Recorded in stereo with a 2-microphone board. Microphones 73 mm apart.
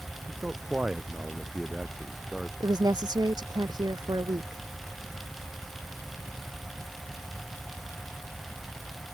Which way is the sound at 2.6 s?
70° right (ahead or behind).